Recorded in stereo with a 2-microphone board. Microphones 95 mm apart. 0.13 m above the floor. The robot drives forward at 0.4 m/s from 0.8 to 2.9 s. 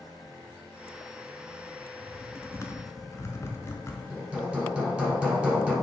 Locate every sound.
2.0 s typing on a keyboard: 35° left (ahead or behind), 0.5 m; by 4.0 s 30° left (ahead or behind), 0.6 m
4.1 s hammering: 10° right (ahead or behind), 1.0 m